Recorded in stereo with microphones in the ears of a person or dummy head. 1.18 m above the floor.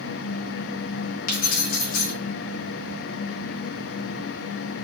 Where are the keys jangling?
50° left (ahead or behind), 0.6 m.